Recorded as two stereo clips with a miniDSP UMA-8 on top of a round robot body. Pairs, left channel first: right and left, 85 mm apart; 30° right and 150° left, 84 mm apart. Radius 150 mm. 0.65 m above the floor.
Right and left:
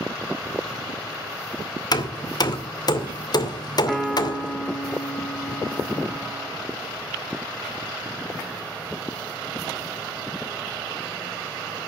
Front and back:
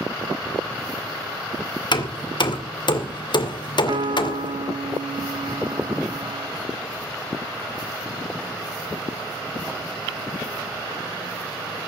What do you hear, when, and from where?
1.9 s hammering: 55° right, 2 m
3.9 s a piano: 175° right, 2.5 m